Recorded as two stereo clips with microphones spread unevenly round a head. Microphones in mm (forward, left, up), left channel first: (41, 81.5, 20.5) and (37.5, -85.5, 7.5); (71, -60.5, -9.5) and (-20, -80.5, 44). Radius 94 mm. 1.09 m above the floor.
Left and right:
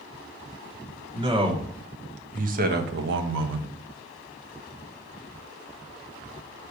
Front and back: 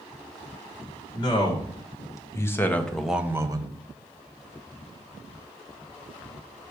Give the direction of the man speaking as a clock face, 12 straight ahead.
1 o'clock.